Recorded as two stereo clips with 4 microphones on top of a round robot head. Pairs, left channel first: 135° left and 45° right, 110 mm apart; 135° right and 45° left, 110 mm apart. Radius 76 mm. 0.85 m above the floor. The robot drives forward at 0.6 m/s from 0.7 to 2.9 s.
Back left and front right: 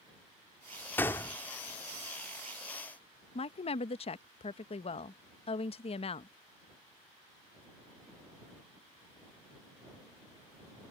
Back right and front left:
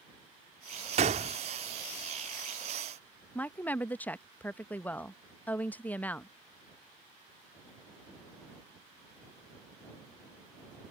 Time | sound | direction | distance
1.0 | a gunshot | 65° left | ?
3.4 | a woman speaking | 150° left | ?